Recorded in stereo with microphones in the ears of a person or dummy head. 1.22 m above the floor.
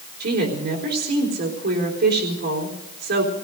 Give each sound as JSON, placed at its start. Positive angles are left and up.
{"t": 0.2, "sound": "a woman speaking", "side_deg": -60, "distance_m": 3.5}